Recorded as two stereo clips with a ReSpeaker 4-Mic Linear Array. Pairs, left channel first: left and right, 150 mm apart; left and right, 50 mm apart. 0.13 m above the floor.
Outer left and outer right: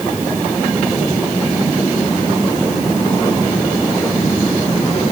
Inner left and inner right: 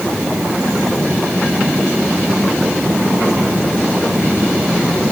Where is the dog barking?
I don't hear a dog barking.